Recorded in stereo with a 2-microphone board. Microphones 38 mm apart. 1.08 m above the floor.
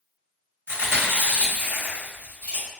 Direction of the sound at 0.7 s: 70° right (ahead or behind).